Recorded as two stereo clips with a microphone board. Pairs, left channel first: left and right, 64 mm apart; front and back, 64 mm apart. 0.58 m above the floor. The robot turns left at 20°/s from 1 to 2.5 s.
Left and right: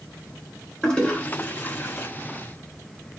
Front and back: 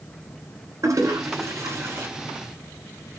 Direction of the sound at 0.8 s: 155° left.